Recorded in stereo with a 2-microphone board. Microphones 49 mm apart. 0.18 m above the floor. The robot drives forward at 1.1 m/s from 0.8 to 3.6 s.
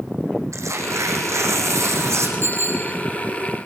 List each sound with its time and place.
0.5 s tearing paper: 80° right, 6.5 m; by 2.3 s 70° right (ahead or behind), 7 m
2.4 s a bicycle bell: 55° right (ahead or behind), 4.5 m; by 2.9 s 50° right (ahead or behind), 5 m